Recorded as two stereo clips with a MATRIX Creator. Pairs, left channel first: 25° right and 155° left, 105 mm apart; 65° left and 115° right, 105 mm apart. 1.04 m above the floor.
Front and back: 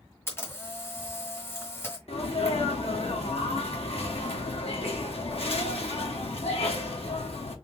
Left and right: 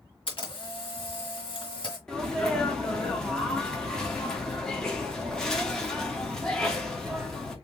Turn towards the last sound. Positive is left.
turn(degrees=-15)